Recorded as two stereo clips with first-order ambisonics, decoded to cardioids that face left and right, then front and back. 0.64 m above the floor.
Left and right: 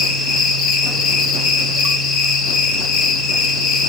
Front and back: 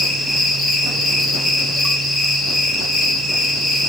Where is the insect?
80° left, 1.9 m.